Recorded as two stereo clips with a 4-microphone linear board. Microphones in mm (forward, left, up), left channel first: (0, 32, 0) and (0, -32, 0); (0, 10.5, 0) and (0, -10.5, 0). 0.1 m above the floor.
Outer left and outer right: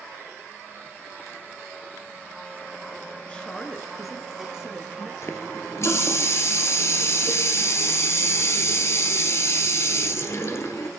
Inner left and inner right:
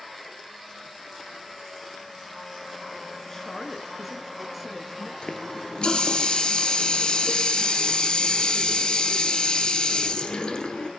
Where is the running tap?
45° left (ahead or behind), 1.3 m.